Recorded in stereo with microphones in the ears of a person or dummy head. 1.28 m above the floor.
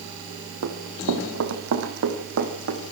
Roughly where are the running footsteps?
Right.